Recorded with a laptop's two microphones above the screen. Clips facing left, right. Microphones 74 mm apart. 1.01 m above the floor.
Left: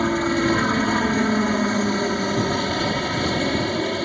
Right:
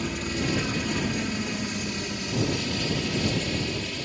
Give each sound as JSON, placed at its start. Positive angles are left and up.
{"t": 0.0, "sound": "a helicopter", "side_deg": 50}